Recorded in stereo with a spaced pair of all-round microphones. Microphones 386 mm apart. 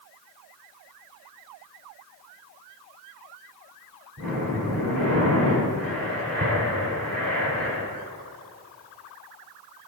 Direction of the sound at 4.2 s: 60° right (ahead or behind).